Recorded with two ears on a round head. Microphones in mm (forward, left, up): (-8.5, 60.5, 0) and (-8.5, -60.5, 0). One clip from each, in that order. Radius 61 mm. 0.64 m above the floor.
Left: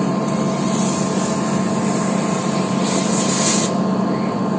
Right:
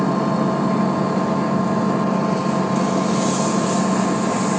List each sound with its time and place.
0.0 s an engine running: 90° right